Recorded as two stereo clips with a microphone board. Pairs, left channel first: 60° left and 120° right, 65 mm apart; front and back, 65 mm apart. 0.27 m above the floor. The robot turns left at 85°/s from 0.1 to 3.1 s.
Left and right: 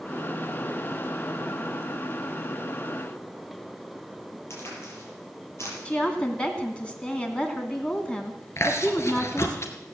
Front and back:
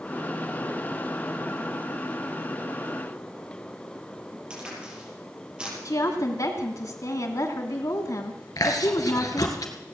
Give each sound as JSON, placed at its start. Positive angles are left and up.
{"t": 4.5, "sound": "a crack", "azimuth_deg": 105, "distance_m": 6.0}
{"t": 5.8, "sound": "a woman speaking", "azimuth_deg": -10, "distance_m": 2.5}
{"t": 8.6, "sound": "chewing", "azimuth_deg": 20, "distance_m": 2.0}